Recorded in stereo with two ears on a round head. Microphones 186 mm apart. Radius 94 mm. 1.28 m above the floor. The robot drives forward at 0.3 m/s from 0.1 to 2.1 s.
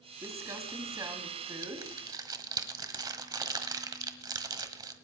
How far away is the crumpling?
About 1.7 m.